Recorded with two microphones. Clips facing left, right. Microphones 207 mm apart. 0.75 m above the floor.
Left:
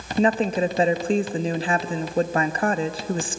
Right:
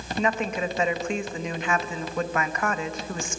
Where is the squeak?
No squeak in this recording.